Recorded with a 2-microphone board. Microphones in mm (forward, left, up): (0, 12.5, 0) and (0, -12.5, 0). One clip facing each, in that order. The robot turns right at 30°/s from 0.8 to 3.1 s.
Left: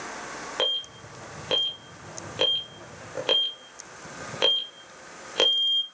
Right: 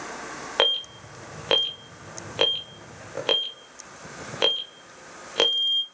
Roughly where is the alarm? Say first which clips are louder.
Right 4 dB; right.